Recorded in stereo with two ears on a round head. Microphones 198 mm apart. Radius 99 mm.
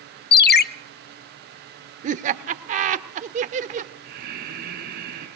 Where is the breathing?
40° right (ahead or behind), 4 m.